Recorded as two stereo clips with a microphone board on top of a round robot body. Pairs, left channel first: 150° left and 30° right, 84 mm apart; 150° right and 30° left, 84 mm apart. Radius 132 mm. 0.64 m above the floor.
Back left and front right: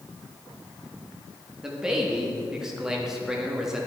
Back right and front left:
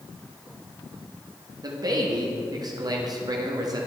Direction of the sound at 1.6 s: 55° left.